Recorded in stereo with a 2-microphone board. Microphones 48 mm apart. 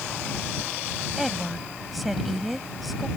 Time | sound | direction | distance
1.2 | a woman speaking | centre (ahead or behind) | ?